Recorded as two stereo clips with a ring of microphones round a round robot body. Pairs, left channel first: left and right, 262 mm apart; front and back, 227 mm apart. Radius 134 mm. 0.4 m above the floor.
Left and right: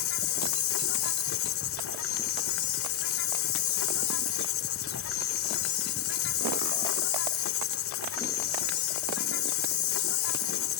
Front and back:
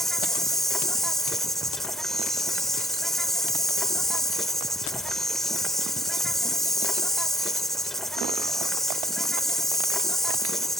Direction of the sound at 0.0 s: 90° left.